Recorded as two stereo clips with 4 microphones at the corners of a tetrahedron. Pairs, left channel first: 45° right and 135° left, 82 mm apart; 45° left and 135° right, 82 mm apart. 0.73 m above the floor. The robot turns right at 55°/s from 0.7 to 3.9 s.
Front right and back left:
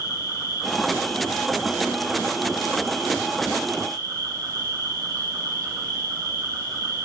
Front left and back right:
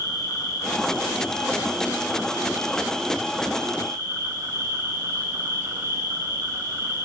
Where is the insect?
Straight ahead, 7 m; by 7.0 s 175° left, 7 m.